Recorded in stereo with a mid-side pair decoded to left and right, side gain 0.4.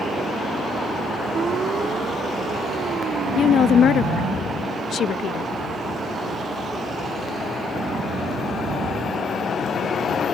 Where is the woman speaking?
60° left.